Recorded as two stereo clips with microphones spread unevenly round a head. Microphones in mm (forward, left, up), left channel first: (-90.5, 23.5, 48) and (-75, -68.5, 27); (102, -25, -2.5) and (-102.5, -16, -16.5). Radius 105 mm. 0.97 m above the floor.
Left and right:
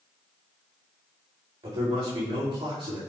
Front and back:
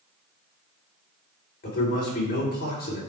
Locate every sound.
1.6 s a man speaking: 50° right, 3 m